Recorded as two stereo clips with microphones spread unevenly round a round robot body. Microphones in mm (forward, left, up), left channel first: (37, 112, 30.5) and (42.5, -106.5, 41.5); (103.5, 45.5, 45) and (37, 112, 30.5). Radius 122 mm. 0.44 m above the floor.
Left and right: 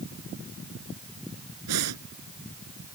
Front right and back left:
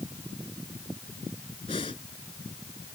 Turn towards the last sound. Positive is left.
turn(degrees=-110)